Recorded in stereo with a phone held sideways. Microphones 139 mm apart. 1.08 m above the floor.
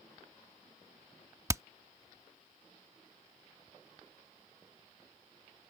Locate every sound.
1.5 s hammering: 20° right (ahead or behind)